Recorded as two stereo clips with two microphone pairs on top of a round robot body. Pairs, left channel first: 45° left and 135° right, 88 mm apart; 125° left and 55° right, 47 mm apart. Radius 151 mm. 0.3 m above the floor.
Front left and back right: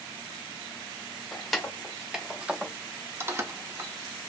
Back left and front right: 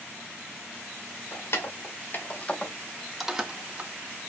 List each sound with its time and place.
1.3 s keys jangling: 125° left, 1.3 m; by 3.9 s 80° right, 1.1 m